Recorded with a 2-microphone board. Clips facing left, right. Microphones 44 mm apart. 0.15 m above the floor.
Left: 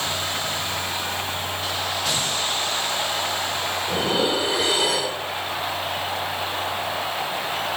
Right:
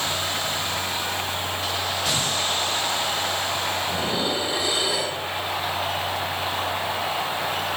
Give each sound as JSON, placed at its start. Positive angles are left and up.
{"t": 3.9, "sound": "dishes clattering", "side_deg": 75, "distance_m": 2.5}